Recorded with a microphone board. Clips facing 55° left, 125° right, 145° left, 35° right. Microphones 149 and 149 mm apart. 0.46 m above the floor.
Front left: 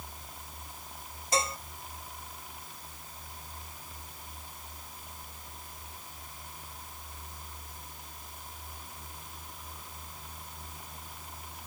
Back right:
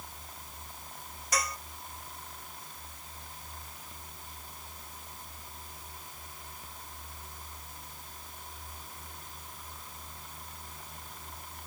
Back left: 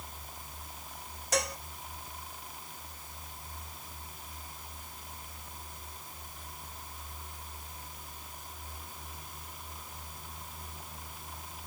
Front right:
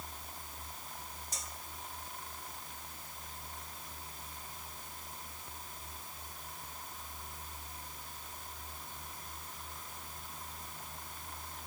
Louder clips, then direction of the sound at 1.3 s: Front left 4 dB, back left 22 dB; 120° left.